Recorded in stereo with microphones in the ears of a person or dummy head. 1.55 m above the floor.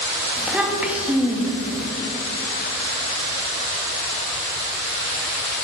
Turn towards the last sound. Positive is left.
turn(degrees=-5)  # may be behind; listen again after turning